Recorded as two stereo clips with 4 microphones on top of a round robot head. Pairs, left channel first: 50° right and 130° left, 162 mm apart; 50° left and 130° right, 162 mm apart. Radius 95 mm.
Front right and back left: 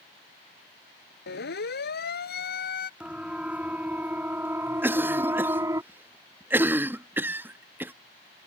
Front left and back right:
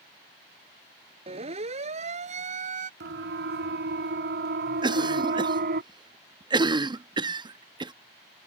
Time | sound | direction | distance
1.3 | a siren | 75° right | ?
3.0 | a siren | 145° right | ?
4.8 | a cough | 165° right | ?